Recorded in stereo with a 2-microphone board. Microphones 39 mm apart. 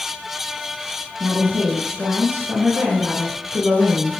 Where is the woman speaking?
70° right (ahead or behind), 5.5 m.